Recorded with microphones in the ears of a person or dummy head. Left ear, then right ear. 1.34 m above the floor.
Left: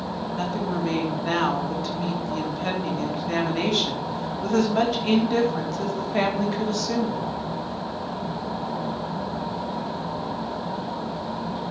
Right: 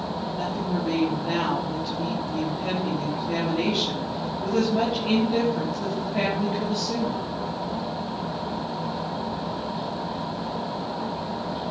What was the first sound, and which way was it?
A woman speaking, 65° left (ahead or behind).